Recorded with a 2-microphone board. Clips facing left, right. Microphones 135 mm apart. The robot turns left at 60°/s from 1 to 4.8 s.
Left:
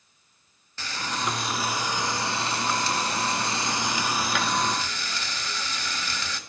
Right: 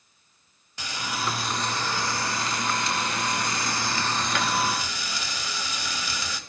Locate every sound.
0.8 s frying: 155° right, 0.7 m; by 6.4 s 20° right, 0.7 m